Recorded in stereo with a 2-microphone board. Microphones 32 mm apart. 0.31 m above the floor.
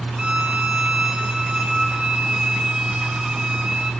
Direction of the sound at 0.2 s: 25° right (ahead or behind).